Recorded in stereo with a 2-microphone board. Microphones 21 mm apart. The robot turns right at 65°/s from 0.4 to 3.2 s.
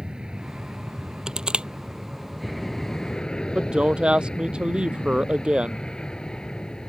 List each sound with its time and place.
0.0 s an aircraft: 135° right; by 6.9 s 45° left
1.3 s crushing: 30° right (ahead or behind); by 1.7 s 55° right (ahead or behind)
3.5 s a woman speaking: 55° right (ahead or behind)